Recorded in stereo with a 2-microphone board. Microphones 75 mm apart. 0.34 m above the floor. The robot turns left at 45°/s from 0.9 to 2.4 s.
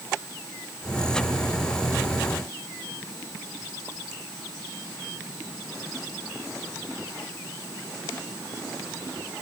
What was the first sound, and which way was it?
Only background noise.